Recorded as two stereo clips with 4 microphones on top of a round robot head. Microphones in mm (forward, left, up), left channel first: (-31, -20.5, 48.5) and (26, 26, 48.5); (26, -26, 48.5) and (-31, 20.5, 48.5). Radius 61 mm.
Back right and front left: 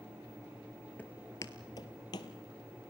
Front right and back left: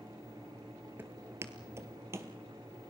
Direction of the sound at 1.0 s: 170° left.